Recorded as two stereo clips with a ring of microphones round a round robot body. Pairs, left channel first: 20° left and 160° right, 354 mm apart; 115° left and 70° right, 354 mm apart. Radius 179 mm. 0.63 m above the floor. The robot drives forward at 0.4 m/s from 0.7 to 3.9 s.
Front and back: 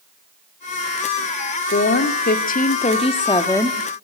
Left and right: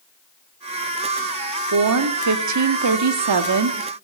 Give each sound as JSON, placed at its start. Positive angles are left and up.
{"t": 1.7, "sound": "a woman speaking", "azimuth_deg": -35, "distance_m": 1.8}